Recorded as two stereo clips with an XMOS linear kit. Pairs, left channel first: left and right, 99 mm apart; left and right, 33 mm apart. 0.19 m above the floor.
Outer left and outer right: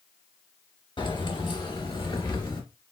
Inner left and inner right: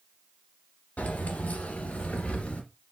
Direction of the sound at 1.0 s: 60° left (ahead or behind).